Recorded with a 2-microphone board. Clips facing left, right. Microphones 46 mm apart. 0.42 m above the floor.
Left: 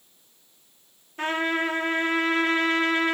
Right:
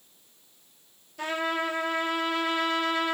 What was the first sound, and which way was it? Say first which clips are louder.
A trumpet: left 3 dB; 35° left (ahead or behind).